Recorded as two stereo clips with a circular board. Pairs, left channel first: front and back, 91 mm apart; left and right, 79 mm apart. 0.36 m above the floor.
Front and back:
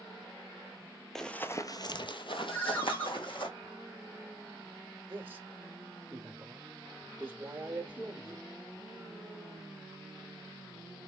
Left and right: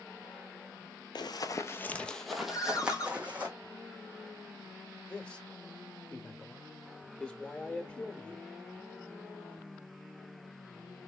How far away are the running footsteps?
About 0.6 m.